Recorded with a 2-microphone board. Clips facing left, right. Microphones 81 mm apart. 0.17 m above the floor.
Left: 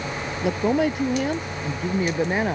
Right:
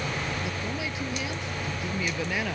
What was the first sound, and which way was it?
A woman speaking, 55° left (ahead or behind).